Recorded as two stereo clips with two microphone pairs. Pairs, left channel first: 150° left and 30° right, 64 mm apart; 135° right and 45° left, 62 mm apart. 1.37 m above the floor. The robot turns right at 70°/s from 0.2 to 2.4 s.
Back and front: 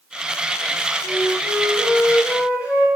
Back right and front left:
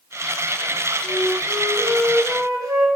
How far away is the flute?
About 7 m.